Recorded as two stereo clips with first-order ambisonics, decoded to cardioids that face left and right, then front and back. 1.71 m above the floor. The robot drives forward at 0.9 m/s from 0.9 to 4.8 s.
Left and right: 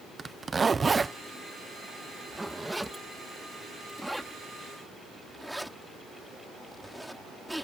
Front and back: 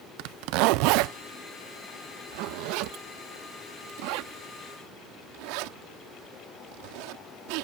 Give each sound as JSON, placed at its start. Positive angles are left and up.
{"t": 0.2, "sound": "a zipper", "azimuth_deg": -165}